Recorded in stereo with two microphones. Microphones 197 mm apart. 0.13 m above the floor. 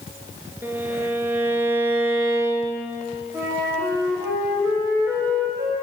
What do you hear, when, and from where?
0.6 s a violin: 10° right (ahead or behind), 0.8 m
3.3 s a flute: 15° right (ahead or behind), 2.5 m